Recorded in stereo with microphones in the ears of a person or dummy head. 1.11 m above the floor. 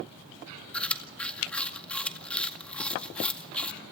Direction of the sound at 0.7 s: 5° left (ahead or behind).